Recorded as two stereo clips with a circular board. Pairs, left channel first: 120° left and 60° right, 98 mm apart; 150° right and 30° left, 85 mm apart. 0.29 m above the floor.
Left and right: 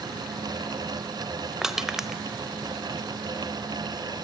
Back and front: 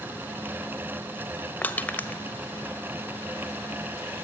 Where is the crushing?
135° right, 1.4 m.